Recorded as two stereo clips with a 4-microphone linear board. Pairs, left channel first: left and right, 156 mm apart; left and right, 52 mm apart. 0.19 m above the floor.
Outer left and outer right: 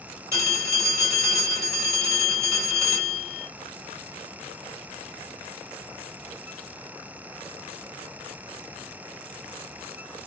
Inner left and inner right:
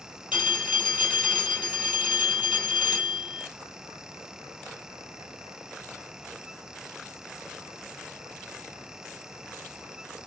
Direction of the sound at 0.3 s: 20° right (ahead or behind).